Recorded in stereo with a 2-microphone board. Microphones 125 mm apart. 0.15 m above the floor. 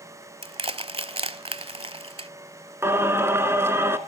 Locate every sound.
0.4 s crushing: 55° right (ahead or behind), 0.6 m
2.8 s singing: 20° right (ahead or behind), 1.2 m